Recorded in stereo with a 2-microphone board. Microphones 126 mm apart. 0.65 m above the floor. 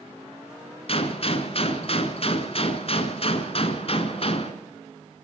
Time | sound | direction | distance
0.9 | a gunshot | 50° left (ahead or behind) | 2.0 m